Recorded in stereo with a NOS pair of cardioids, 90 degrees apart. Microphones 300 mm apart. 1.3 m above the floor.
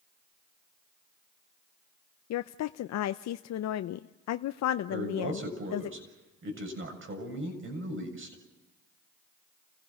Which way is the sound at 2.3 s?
65° left.